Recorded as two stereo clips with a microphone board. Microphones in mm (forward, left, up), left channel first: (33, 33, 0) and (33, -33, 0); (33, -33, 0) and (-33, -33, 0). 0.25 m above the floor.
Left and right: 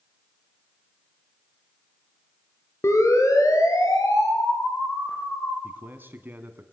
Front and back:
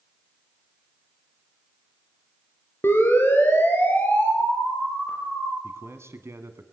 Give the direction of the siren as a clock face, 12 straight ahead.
10 o'clock.